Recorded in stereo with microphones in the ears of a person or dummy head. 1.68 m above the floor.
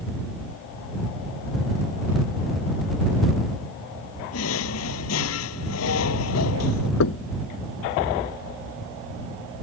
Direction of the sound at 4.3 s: 80° left.